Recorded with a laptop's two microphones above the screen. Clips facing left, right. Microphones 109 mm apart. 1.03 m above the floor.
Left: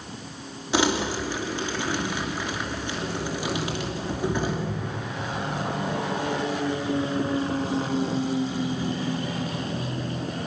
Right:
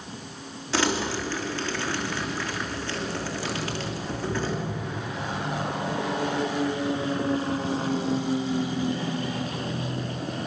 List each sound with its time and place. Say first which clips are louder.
0.7 s crumpling: left 2 dB; 15° left (ahead or behind), 2.5 m